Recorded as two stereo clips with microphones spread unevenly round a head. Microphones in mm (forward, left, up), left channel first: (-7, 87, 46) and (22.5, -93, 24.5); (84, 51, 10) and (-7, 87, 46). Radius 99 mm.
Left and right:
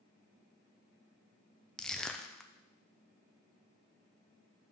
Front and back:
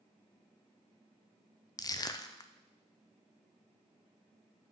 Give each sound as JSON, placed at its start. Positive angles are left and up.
{"t": 1.8, "sound": "crushing", "azimuth_deg": 10, "distance_m": 0.6}